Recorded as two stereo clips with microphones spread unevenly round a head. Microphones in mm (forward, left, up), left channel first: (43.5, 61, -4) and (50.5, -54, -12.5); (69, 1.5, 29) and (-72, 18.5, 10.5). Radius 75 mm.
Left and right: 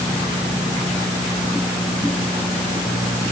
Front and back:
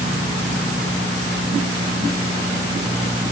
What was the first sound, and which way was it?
Only background noise.